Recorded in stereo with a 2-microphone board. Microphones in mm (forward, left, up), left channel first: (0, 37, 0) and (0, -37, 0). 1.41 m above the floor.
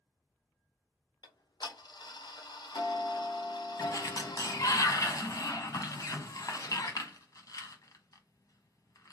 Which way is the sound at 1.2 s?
80° left.